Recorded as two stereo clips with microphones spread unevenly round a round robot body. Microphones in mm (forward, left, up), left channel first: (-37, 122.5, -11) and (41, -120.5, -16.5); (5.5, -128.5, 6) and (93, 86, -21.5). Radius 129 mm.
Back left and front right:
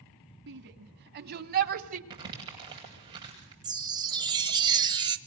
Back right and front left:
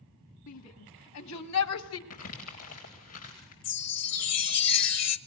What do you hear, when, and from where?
0.5 s a shout: 120° right, 3 m; by 2.0 s 130° right, 1.6 m
2.1 s crumpling: 145° right, 9.5 m
3.6 s a chime: 145° right, 0.8 m